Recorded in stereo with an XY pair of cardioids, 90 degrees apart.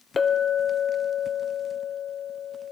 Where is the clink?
35° left, 1.0 m.